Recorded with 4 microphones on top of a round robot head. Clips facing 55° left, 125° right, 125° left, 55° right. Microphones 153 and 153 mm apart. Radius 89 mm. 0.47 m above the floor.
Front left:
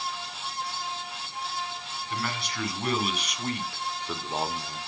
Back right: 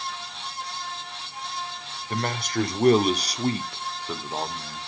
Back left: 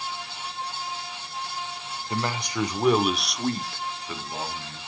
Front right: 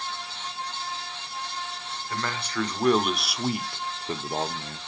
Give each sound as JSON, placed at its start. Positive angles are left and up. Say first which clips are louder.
{"t": 2.1, "sound": "a man speaking", "louder": "back right 6 dB, back left 3 dB", "azimuth_deg": -165, "distance_m": 1.8}